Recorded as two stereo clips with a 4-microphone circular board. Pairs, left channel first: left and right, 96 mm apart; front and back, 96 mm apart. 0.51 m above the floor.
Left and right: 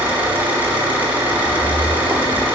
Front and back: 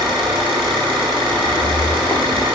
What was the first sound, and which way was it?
An engine running, 160° right.